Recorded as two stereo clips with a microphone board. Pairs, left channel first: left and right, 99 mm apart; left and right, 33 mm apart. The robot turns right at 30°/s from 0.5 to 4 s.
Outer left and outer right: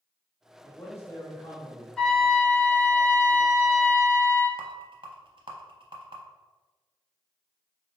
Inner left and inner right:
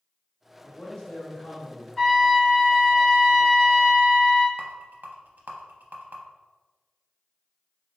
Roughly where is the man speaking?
Left.